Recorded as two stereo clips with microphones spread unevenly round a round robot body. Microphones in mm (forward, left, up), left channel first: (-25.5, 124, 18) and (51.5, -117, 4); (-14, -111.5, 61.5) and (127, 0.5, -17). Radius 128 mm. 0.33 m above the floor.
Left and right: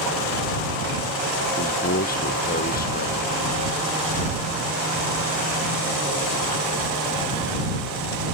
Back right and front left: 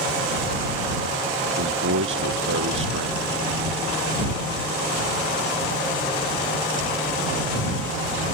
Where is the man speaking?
50° left.